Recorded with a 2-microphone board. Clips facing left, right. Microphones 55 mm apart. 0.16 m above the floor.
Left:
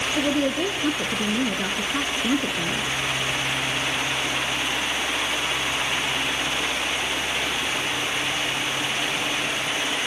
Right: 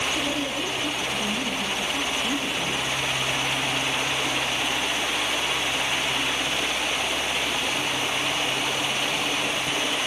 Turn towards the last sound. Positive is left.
turn(degrees=50)  # may be behind; listen again after turning